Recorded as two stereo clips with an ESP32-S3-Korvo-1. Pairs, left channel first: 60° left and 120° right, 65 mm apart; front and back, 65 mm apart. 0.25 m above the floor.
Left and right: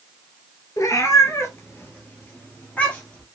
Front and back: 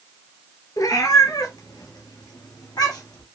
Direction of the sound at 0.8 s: 25° left.